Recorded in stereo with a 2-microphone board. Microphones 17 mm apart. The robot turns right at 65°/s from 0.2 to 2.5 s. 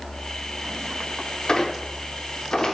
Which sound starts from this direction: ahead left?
A squeak, at 1.5 s.